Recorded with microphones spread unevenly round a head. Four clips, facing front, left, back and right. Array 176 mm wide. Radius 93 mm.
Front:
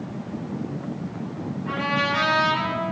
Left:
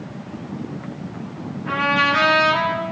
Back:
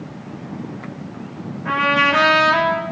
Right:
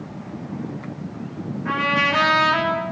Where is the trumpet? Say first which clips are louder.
Left 2 dB, back 8 dB; 165° right, 5.5 m.